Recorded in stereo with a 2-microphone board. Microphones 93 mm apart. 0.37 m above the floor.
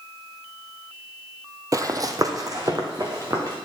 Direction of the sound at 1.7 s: 40° right (ahead or behind).